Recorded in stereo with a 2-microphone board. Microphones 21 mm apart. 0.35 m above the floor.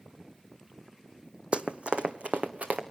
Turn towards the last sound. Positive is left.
turn(degrees=-65)  # may be behind; listen again after turning